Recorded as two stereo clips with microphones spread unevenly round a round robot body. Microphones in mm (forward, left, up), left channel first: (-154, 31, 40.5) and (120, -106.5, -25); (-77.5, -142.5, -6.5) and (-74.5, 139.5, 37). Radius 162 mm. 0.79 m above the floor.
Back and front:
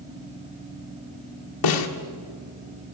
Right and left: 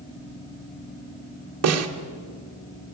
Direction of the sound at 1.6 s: 125° left.